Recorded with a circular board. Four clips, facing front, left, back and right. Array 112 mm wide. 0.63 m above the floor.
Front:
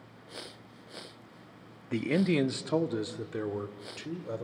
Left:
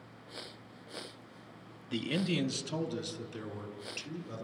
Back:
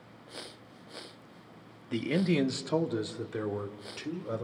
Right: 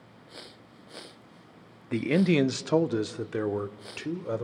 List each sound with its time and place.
1.9 s a man speaking: 70° right, 0.6 m; by 4.5 s 95° right, 1.7 m